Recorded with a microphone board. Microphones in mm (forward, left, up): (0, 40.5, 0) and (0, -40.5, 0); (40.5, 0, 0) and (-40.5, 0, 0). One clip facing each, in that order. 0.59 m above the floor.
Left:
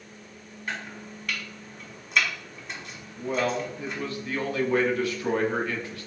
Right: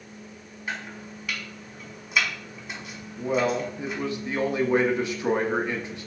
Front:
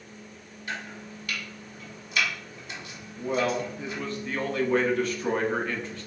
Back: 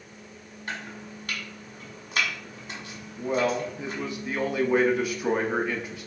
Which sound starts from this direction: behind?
Chopping, at 0.7 s.